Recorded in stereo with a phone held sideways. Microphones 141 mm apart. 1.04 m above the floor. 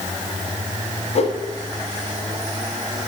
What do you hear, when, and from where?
1.1 s a whoosh: 50° left (ahead or behind), 1.3 m